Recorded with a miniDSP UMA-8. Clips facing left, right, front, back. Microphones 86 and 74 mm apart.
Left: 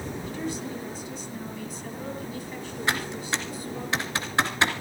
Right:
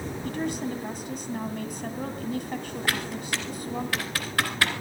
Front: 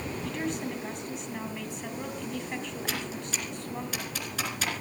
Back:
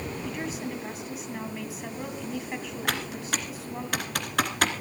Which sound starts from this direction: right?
A woman speaking, at 0.2 s.